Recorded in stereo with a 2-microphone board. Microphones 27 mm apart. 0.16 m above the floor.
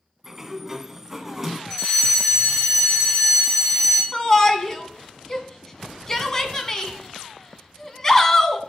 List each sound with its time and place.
0.2 s a sliding door: 15° right (ahead or behind), 0.7 m
1.7 s a fire alarm: 20° left (ahead or behind), 6 m
4.1 s a shout: 20° left (ahead or behind), 1.0 m